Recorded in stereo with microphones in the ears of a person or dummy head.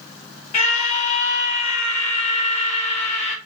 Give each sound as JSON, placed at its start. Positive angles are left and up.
{"t": 0.5, "sound": "a scream", "side_deg": 35, "distance_m": 2.5}